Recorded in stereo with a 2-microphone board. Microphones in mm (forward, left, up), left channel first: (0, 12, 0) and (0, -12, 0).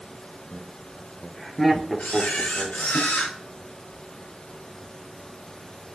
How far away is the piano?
No piano in this recording.